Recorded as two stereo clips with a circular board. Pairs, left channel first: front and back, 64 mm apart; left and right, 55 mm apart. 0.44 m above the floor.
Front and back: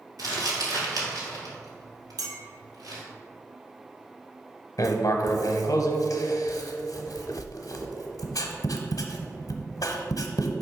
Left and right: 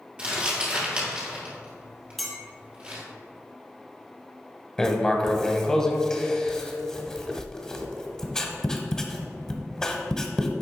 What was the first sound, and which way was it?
Crumpling, 160° right.